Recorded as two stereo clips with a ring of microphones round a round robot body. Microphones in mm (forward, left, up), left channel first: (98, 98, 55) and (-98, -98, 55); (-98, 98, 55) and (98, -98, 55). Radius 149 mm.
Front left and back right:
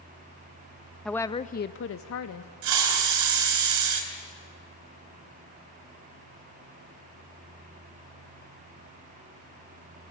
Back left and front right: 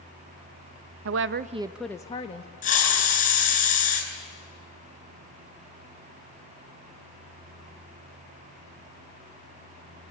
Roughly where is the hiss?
Behind.